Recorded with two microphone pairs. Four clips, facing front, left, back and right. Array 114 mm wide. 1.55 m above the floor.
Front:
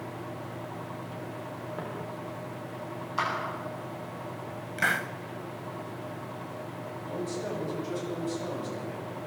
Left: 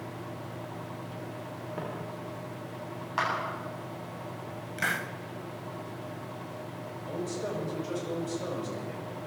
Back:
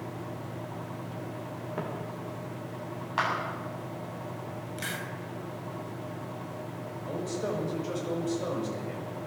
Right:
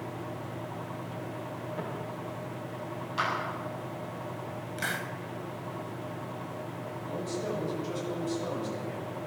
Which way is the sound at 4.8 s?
10° left.